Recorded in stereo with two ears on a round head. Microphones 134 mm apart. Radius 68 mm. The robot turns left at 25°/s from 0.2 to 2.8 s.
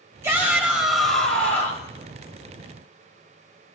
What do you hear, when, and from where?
0.2 s a shout: 160° right, 3 m; by 1.9 s 155° left, 3 m